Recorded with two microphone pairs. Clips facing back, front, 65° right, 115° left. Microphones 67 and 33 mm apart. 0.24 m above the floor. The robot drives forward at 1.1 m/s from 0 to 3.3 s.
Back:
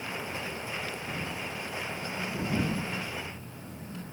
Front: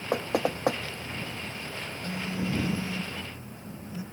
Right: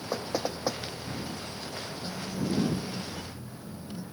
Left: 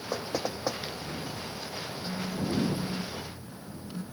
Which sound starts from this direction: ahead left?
A phone buzzing, at 2.0 s.